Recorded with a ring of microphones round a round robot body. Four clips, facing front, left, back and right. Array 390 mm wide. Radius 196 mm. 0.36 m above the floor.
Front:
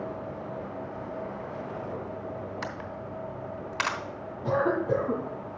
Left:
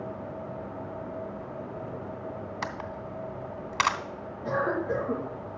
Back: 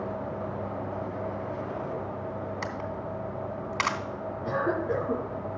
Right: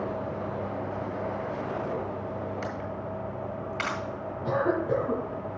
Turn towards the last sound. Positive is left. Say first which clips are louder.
# right 2 dB, front 3 dB
turn(degrees=-30)